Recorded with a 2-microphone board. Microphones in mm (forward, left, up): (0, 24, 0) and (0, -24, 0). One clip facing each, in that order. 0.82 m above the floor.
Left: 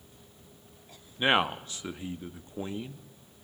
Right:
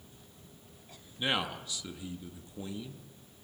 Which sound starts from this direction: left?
A man speaking, at 1.2 s.